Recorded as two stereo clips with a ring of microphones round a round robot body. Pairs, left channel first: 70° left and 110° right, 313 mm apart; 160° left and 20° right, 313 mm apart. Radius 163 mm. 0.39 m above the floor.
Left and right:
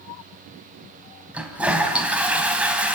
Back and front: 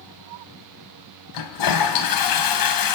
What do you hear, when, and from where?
1.3 s a toilet flushing: 160° left, 3 m